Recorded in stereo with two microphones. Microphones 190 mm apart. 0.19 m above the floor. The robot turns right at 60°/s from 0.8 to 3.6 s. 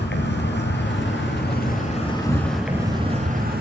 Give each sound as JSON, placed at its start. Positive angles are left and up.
{"t": 0.0, "sound": "an insect", "azimuth_deg": 75, "distance_m": 2.5}